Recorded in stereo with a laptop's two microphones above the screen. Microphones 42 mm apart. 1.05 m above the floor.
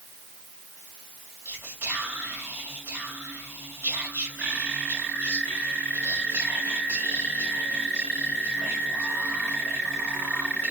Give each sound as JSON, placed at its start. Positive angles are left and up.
{"t": 1.4, "sound": "whispering", "side_deg": -65, "distance_m": 2.0}